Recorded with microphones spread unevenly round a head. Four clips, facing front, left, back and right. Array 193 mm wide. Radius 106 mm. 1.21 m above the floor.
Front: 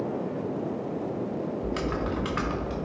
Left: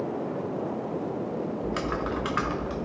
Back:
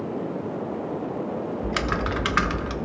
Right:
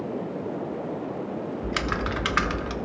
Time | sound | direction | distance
1.6 | typing on a keyboard | 140° right | 0.9 m